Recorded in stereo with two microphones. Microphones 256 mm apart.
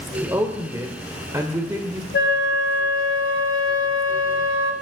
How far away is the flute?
About 1.2 m.